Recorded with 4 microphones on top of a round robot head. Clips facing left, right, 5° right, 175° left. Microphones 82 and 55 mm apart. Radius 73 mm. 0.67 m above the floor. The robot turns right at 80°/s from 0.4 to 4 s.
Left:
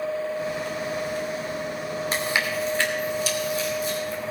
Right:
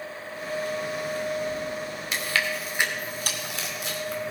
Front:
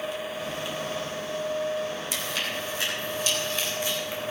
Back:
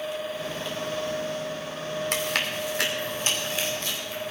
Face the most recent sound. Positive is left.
turn(degrees=-70)